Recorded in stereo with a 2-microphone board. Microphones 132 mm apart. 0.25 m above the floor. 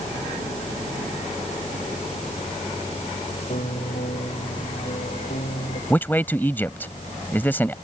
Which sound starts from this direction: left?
A piano, at 3.5 s.